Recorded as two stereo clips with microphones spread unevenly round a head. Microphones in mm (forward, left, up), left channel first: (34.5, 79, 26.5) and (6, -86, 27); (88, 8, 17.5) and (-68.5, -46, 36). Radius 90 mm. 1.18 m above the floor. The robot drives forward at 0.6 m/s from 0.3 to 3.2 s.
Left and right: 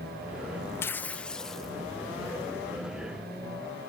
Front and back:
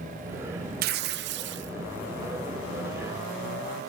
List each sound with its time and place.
0.8 s tearing paper: 160° left, 0.5 m; by 1.7 s 170° left, 1.1 m